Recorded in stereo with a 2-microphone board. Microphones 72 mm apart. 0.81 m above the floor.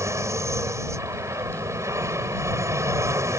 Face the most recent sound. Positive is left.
turn(degrees=-45)  # may be behind; listen again after turning